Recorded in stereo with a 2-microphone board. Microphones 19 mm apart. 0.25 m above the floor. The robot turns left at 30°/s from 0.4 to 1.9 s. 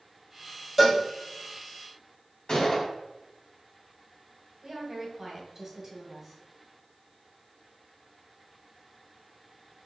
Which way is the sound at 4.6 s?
20° right (ahead or behind).